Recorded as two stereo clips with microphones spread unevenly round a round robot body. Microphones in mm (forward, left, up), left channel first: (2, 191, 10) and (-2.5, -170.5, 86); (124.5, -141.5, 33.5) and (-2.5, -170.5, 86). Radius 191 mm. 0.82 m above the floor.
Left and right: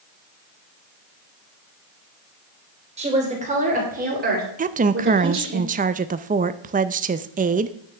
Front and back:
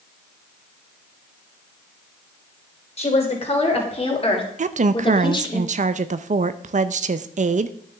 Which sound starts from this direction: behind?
A woman speaking, at 4.6 s.